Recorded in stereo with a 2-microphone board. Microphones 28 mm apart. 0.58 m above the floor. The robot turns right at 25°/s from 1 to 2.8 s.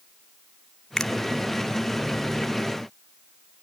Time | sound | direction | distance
1.0 | a finger snap | 25° left (ahead or behind) | 1.0 m